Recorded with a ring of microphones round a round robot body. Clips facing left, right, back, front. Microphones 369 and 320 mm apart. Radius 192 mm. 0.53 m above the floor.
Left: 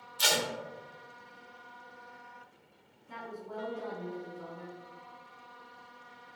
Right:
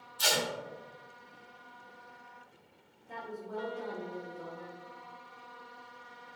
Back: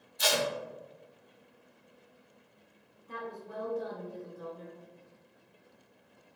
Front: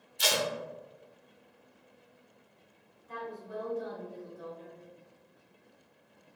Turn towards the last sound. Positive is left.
turn(degrees=170)